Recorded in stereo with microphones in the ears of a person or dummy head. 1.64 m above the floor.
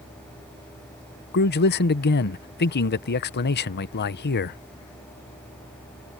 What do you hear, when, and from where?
1.3 s a man speaking: 50° left (ahead or behind)